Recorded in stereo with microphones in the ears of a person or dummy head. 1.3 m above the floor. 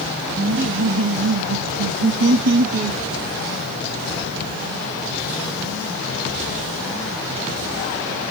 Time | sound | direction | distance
0.4 | laughter | 65° right (ahead or behind) | 2 m